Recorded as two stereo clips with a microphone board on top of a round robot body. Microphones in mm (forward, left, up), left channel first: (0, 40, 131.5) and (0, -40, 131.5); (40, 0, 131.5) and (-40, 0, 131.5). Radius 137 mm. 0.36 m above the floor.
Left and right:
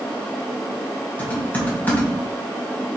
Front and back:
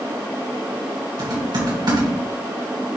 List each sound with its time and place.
1.2 s typing on a keyboard: 160° left, 3.5 m